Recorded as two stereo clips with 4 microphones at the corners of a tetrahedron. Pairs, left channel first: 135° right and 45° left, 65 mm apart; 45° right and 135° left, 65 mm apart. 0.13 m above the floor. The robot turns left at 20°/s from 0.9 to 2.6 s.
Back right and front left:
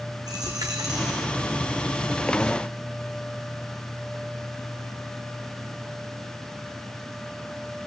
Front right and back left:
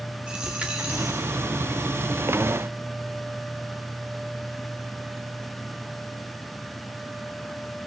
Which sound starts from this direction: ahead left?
A dropped coin, at 0.3 s.